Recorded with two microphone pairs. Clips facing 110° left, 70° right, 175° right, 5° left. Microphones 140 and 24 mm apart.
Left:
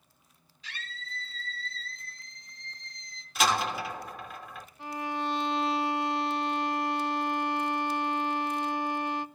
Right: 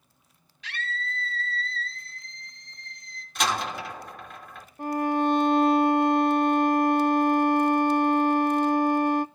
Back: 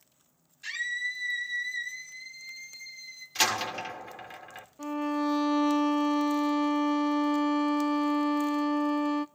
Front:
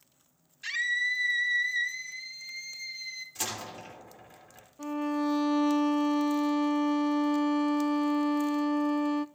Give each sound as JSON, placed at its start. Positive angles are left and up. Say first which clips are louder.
{"t": 0.6, "sound": "a scream", "louder": "right 10 dB, front 4 dB", "azimuth_deg": -75, "distance_m": 4.5}
{"t": 3.4, "sound": "a door slam", "louder": "even, back 13 dB", "azimuth_deg": -165, "distance_m": 3.0}
{"t": 4.8, "sound": "a violin", "louder": "right 10 dB, even", "azimuth_deg": -105, "distance_m": 0.5}